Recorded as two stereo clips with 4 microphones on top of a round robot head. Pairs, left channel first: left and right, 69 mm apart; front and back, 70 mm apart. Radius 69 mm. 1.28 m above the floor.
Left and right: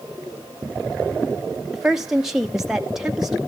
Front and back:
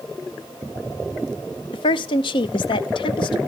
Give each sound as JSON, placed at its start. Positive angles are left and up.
{"t": 1.7, "sound": "a woman speaking", "azimuth_deg": -5, "distance_m": 0.6}